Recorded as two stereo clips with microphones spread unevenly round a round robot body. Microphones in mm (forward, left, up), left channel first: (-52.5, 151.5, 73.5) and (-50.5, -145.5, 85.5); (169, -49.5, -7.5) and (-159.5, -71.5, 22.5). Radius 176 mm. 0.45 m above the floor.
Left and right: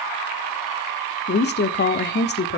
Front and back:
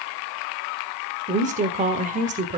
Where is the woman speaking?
120° left, 1.4 m.